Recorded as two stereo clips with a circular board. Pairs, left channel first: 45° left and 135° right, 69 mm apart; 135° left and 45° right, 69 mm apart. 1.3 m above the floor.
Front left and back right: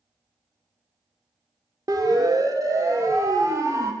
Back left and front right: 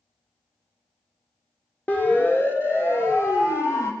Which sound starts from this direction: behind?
A siren, at 1.9 s.